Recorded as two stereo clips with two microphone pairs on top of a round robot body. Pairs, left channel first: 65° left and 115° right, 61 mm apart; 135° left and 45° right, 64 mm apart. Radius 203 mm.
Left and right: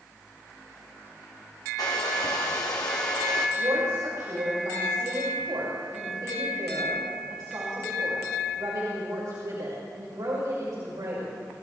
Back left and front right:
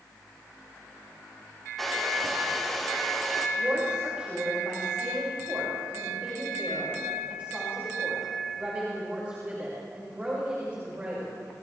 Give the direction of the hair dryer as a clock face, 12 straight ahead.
10 o'clock.